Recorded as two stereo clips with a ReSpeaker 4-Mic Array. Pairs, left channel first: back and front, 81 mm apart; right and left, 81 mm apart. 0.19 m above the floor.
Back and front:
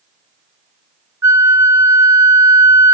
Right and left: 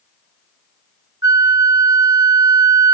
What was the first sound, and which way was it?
A flute, 50° left.